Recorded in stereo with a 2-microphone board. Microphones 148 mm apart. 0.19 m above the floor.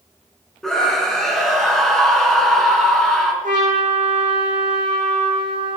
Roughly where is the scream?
Centre.